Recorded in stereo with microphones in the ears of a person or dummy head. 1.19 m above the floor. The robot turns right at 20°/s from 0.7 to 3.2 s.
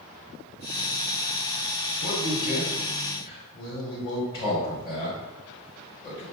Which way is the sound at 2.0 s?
50° left (ahead or behind).